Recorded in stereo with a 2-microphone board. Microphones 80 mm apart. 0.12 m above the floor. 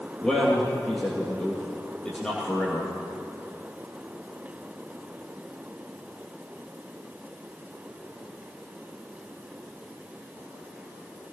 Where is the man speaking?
10° left (ahead or behind), 2.5 m.